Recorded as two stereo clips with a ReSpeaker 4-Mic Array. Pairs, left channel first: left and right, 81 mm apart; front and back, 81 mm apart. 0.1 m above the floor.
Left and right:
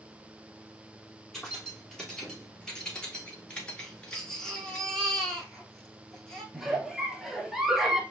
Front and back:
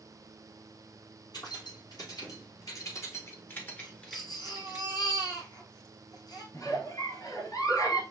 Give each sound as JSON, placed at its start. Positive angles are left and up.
{"t": 1.3, "sound": "keys jangling", "azimuth_deg": 5, "distance_m": 2.0}
{"t": 3.8, "sound": "a baby crying", "azimuth_deg": 10, "distance_m": 1.4}
{"t": 6.5, "sound": "a giggle", "azimuth_deg": -5, "distance_m": 0.9}